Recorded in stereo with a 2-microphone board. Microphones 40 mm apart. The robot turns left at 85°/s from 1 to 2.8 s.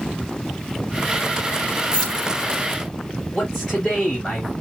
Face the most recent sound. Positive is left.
turn(degrees=15)  # may be behind; listen again after turning